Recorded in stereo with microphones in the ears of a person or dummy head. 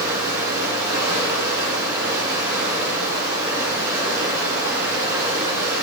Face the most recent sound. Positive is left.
turn(degrees=-20)  # may be behind; listen again after turning